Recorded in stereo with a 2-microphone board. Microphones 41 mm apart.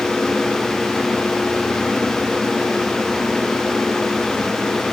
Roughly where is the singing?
No singing in this recording.